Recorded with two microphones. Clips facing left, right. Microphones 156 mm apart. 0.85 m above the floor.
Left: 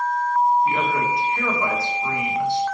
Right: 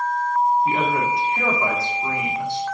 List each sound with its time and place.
0.7 s a man speaking: 25° right (ahead or behind), 1.8 m